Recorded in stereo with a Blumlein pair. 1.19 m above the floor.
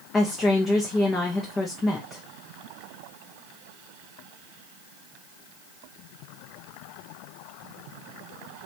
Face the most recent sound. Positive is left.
turn(degrees=10)